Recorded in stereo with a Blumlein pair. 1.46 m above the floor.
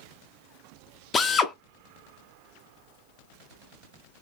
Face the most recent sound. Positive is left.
turn(degrees=20)